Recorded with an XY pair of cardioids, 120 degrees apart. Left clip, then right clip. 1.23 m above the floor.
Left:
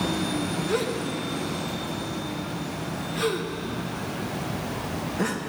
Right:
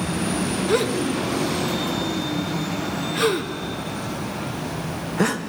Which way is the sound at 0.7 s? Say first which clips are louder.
Right 7 dB; 40° right.